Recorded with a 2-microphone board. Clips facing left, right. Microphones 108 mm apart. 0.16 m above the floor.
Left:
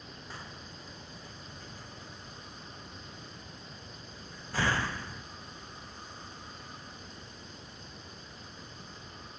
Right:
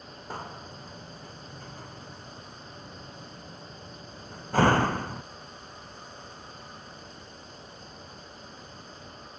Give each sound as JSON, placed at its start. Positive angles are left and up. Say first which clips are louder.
{"t": 0.3, "sound": "a door slam", "louder": "right 10 dB", "side_deg": -55}